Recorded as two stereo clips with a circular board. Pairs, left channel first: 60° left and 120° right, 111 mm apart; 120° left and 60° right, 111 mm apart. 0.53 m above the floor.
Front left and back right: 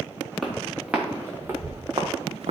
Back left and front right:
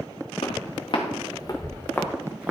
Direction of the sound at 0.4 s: 150° left.